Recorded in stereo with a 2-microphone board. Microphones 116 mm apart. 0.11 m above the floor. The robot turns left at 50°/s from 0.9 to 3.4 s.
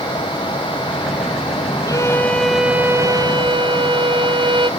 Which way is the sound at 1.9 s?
30° left.